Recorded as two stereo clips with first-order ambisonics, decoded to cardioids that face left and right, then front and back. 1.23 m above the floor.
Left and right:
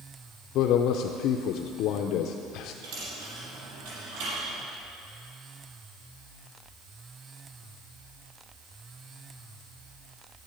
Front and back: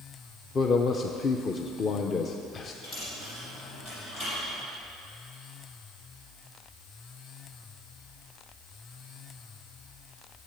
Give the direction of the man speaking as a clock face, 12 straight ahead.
10 o'clock.